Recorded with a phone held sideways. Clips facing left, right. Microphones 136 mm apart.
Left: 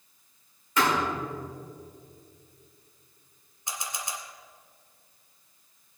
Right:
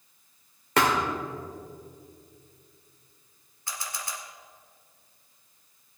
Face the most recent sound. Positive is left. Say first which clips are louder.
# left 1 dB
turn(degrees=20)  # may be behind; listen again after turning